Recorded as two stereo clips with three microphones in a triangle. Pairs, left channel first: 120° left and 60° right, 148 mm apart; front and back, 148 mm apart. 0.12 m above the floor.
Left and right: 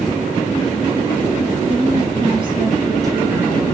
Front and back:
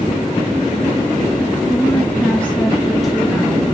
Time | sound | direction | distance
1.7 | a woman speaking | 65° right | 2 m